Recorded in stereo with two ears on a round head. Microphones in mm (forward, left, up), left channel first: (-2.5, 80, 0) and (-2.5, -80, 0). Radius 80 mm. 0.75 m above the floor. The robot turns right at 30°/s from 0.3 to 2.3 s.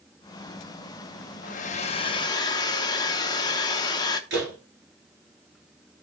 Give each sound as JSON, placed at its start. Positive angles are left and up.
{"t": 1.4, "sound": "a hair dryer", "side_deg": 50, "distance_m": 0.9}
{"t": 4.3, "sound": "a door slam", "side_deg": -65, "distance_m": 8.0}